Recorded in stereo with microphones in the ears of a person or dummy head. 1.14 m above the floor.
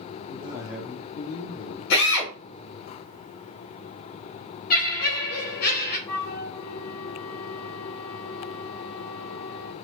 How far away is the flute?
About 1.2 m.